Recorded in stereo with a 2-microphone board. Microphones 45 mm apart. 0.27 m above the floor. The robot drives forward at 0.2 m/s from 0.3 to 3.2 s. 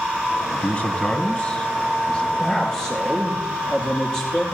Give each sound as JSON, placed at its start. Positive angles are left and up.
{"t": 0.5, "sound": "a man speaking", "side_deg": 25, "distance_m": 2.0}
{"t": 2.4, "sound": "a man speaking", "side_deg": 10, "distance_m": 7.0}